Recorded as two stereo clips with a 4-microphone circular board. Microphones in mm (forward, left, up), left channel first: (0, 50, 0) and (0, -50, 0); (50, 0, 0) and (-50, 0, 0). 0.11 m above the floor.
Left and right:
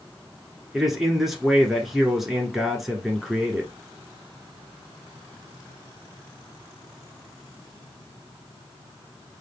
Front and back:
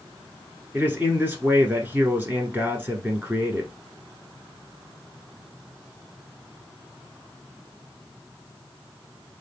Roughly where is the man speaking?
Behind.